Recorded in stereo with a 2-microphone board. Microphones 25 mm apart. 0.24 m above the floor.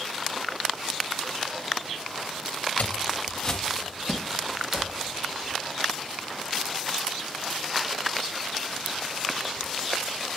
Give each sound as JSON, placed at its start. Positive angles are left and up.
{"t": 2.8, "sound": "footsteps", "side_deg": 60, "distance_m": 1.3}